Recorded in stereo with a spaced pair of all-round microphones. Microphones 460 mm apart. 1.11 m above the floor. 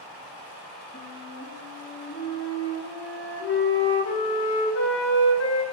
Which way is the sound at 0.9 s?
30° left (ahead or behind).